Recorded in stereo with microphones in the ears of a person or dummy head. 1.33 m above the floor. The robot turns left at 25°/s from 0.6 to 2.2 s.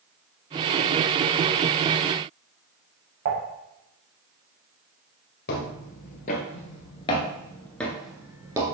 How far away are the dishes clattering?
About 2.5 m.